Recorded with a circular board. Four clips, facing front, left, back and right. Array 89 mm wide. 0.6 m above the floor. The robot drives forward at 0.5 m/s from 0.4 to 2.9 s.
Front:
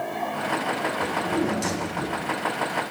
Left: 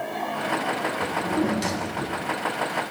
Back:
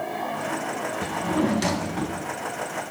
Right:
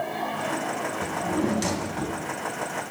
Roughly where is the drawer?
Behind.